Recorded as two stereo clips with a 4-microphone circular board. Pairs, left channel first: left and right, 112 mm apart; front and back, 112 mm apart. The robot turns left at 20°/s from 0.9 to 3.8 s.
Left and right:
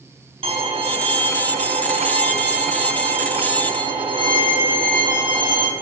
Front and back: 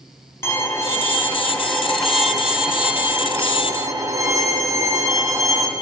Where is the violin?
65° right, 4 m; by 5.7 s 125° right, 4 m.